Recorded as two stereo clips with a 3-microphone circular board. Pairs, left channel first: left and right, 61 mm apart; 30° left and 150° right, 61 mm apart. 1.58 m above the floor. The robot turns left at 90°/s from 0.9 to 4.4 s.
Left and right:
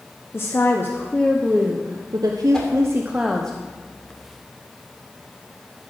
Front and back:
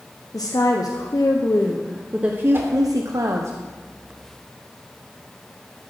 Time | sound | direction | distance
0.3 | a woman speaking | 40° left | 0.8 m
2.5 | a whoosh | 170° left | 2.5 m